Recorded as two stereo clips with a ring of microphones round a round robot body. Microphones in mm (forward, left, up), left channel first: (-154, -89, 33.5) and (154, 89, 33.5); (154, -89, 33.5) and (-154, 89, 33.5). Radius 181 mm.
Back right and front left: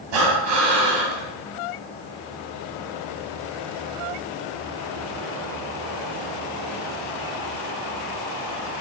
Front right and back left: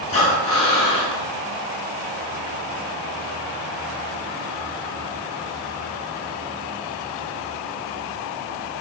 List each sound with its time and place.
0.1 s breathing: 45° left, 2 m